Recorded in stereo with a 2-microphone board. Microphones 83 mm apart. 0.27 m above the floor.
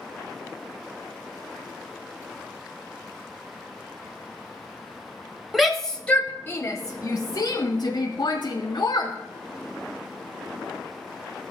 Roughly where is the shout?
Centre.